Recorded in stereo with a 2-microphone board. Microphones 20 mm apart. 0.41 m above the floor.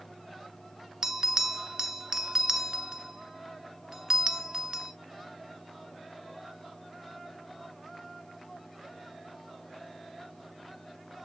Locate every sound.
1.0 s a bell: 30° right (ahead or behind), 0.5 m